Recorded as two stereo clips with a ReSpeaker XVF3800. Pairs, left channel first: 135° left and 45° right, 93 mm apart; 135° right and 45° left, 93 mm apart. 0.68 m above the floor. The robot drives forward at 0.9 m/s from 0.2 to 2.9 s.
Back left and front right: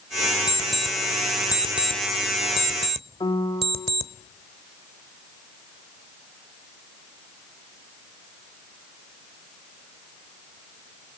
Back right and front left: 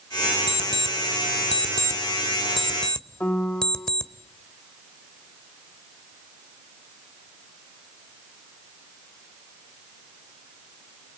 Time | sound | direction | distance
0.5 | an alarm clock | 40° left | 1.3 m
3.2 | a piano | 155° left | 1.4 m